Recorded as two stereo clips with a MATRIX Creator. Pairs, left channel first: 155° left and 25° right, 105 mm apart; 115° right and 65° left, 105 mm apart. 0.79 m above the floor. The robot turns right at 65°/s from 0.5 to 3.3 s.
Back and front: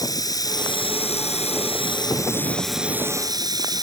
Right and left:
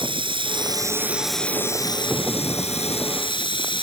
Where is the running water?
105° left; by 3.8 s 75° right.